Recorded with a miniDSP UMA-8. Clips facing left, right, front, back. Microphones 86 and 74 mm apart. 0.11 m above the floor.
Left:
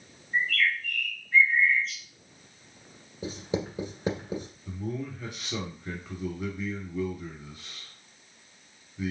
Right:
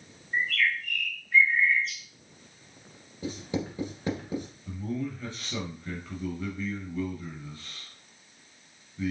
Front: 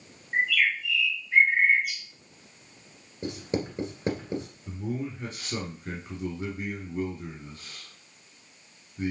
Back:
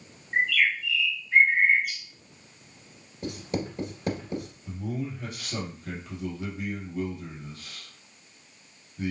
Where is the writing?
40° left, 1.9 m.